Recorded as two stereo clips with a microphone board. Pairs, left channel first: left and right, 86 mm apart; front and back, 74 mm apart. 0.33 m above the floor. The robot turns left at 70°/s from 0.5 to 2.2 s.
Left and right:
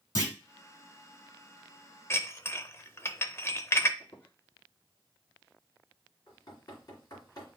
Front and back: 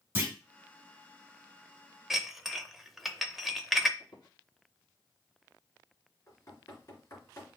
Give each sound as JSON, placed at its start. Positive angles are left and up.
{"t": 0.1, "sound": "a clunk", "azimuth_deg": 135, "distance_m": 2.5}
{"t": 2.1, "sound": "dishes clattering", "azimuth_deg": 105, "distance_m": 0.6}
{"t": 4.0, "sound": "a squeak", "azimuth_deg": 25, "distance_m": 3.0}
{"t": 6.3, "sound": "knocking", "azimuth_deg": 45, "distance_m": 3.0}